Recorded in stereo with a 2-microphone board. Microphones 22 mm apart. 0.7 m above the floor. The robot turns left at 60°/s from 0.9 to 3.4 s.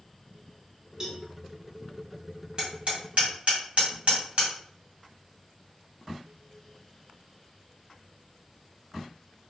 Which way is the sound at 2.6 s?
45° right (ahead or behind).